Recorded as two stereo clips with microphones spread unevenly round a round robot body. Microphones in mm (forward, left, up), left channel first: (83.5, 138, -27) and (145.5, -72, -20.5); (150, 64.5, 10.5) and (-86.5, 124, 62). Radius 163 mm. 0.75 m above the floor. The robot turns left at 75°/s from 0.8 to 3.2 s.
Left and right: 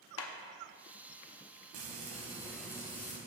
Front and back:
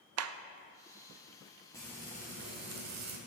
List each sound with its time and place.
0.2 s a clap: 135° left, 0.5 m
1.7 s frying: 100° right, 1.3 m; by 3.2 s 155° left, 1.3 m